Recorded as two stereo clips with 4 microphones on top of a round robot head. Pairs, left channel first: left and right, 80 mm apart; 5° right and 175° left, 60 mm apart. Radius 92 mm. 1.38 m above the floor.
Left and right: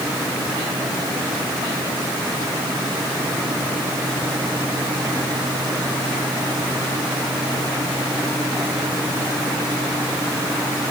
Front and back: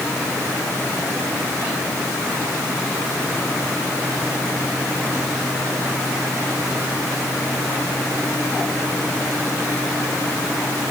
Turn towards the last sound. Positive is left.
No sound to turn to.